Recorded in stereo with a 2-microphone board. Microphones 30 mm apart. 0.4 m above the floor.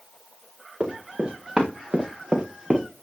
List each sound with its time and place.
0.8 s running footsteps: 30° right (ahead or behind), 4 m; by 2.9 s 25° right (ahead or behind), 2 m